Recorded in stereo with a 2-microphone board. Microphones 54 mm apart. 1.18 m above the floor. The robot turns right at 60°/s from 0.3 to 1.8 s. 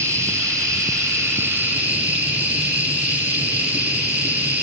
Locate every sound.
0.0 s an insect: 125° right, 6 m; by 4.6 s 35° right, 6 m